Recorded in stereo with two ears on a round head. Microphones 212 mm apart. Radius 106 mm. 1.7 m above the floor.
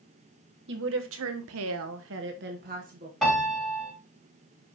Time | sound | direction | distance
0.7 | a woman speaking | 50° right (ahead or behind) | 1.4 m
3.2 | a piano | 5° left (ahead or behind) | 4 m